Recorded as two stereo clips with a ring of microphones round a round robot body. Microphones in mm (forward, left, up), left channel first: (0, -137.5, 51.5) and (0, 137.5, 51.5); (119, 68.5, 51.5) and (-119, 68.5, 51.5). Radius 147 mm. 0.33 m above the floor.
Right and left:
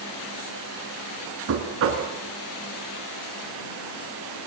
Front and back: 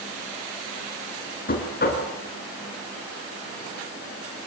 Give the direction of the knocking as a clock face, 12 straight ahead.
10 o'clock.